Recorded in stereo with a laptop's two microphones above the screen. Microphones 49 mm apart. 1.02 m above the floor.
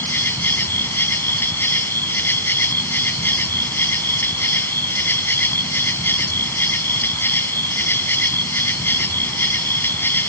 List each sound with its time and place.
0.0 s an insect: 50° left (ahead or behind)